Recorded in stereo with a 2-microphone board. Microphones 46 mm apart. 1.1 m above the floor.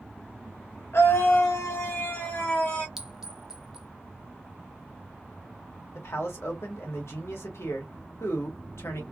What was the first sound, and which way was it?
A scream, 65° left (ahead or behind).